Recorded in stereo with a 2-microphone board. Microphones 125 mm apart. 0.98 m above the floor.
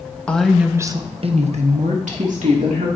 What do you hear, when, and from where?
0.3 s a woman speaking: 10° left (ahead or behind), 1.0 m; by 2.9 s 75° right (ahead or behind), 2.5 m